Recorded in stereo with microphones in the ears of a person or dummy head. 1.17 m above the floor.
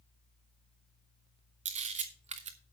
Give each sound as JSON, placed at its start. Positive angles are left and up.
{"t": 1.6, "sound": "a camera shutter", "side_deg": -35, "distance_m": 1.0}